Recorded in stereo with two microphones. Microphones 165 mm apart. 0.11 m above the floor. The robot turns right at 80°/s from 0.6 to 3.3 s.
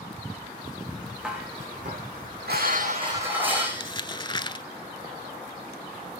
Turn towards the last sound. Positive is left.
turn(degrees=30)  # may be behind; listen again after turning